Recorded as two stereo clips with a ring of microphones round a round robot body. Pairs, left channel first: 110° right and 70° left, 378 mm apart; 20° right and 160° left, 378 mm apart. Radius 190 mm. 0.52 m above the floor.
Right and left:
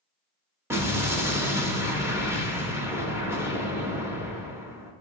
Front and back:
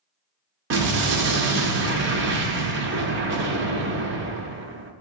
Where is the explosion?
145° left, 0.5 m.